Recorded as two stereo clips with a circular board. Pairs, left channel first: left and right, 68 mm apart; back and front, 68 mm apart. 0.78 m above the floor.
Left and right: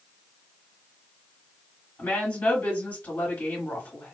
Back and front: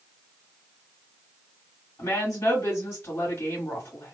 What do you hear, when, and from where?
2.0 s a woman speaking: 145° left, 1.8 m